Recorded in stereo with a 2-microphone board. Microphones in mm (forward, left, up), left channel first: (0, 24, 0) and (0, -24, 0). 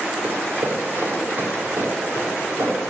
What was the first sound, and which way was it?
Running footsteps, 40° right (ahead or behind).